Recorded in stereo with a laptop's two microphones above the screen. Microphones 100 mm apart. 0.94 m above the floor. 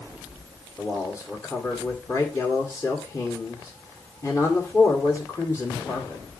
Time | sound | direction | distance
0.8 | a man speaking | 35° left (ahead or behind) | 2 m